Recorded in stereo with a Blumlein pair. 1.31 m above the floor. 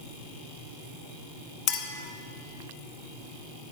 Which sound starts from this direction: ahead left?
A clink, at 1.7 s.